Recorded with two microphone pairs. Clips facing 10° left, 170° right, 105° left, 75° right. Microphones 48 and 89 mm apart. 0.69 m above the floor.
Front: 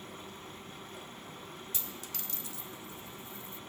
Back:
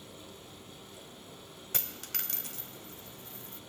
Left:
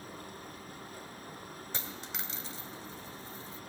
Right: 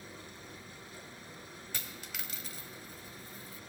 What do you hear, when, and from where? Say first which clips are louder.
0.0 s running water: front 3 dB, left 4 dB; 60° left, 4.5 m
1.7 s a dropped coin: back 2 dB, left 3 dB; 165° left, 0.9 m